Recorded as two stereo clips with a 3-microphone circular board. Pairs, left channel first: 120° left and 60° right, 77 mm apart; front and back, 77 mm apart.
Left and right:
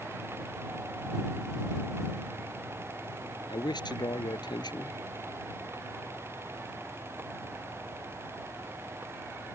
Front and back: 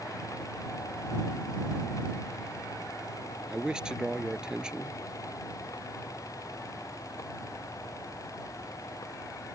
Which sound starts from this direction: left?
A man speaking, at 3.5 s.